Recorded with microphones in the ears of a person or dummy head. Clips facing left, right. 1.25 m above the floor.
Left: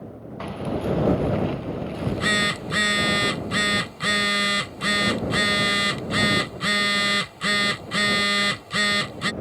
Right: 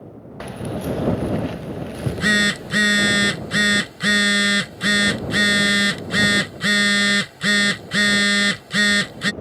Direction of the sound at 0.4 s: 20° right (ahead or behind).